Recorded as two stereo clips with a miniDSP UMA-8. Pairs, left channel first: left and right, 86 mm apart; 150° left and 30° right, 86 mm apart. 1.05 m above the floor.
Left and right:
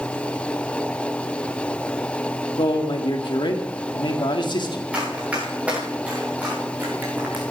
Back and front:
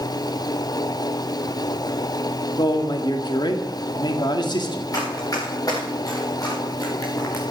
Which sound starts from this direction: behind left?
A man speaking, at 2.6 s.